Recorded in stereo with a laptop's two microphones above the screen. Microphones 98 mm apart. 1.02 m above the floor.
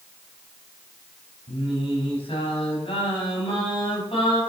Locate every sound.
1.5 s singing: 70° left (ahead or behind), 4 m